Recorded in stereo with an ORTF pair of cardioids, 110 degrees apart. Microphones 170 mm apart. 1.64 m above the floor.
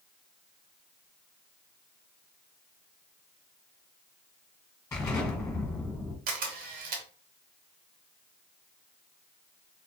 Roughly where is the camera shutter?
Ahead right.